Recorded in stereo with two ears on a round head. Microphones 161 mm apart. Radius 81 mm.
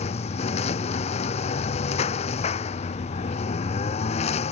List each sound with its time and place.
0.0 s a lawn mower: 35° left (ahead or behind)